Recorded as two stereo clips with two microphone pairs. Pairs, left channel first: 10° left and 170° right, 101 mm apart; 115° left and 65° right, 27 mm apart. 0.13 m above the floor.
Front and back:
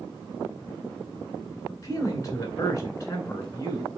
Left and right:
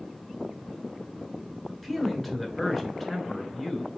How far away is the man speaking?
About 1.3 m.